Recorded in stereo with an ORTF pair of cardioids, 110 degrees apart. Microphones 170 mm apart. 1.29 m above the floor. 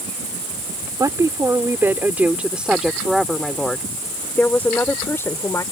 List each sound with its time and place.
1.0 s a woman speaking: 20° right; by 5.6 s 15° left